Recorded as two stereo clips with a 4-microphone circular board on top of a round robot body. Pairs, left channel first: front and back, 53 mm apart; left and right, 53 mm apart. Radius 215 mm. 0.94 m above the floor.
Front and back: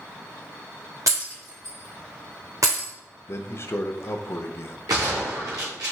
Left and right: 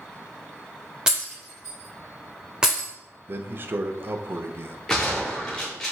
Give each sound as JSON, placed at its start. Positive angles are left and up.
{"t": 1.1, "sound": "breaking glass", "azimuth_deg": -165, "distance_m": 0.7}
{"t": 3.3, "sound": "a man speaking", "azimuth_deg": -40, "distance_m": 0.7}
{"t": 4.9, "sound": "a gunshot", "azimuth_deg": 165, "distance_m": 0.8}